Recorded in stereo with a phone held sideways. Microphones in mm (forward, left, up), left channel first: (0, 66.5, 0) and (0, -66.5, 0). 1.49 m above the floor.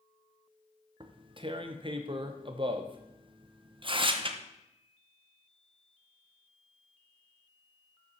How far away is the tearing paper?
About 0.7 m.